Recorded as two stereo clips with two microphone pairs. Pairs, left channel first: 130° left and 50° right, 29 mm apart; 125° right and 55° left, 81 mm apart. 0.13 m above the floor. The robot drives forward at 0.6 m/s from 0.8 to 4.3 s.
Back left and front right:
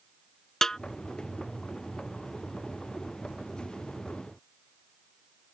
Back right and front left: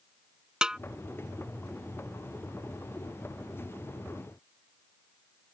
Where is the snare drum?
115° left.